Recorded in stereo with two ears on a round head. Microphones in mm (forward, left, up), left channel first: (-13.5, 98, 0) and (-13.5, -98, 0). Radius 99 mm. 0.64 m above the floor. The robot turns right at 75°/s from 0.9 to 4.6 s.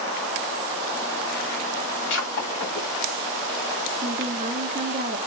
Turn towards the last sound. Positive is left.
turn(degrees=-95)